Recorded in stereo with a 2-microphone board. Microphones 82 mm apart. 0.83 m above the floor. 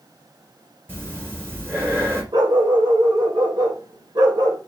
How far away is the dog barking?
About 1.3 m.